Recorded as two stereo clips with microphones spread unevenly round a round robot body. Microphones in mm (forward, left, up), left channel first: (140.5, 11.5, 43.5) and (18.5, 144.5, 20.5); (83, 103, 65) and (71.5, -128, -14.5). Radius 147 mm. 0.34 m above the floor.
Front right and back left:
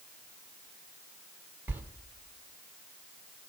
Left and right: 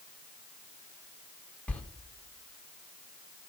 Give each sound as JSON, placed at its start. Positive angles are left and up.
{"t": 1.7, "sound": "a sliding door", "azimuth_deg": -165, "distance_m": 0.8}